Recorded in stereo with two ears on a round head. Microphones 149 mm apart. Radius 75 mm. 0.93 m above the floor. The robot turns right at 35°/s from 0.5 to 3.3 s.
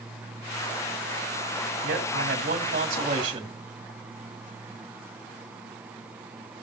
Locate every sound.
1.8 s a man speaking: 90° right, 1.8 m; by 3.5 s 40° right, 1.8 m